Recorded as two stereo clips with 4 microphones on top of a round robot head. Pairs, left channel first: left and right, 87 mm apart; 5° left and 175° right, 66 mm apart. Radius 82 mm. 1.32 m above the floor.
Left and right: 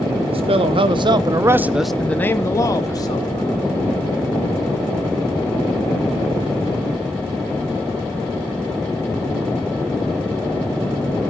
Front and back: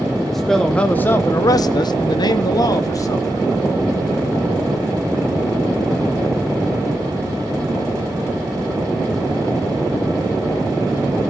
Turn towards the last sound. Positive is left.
turn(degrees=50)